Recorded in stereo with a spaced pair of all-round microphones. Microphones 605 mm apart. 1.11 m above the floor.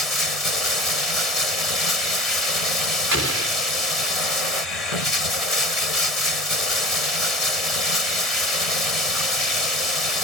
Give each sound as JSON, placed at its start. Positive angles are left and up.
{"t": 0.0, "sound": "running water", "side_deg": 70}
{"t": 3.1, "sound": "an explosion", "side_deg": -25}